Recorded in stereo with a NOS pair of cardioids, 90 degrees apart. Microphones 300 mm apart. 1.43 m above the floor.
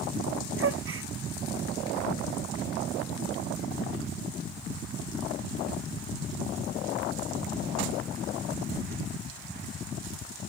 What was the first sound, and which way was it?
A gasp, 45° right.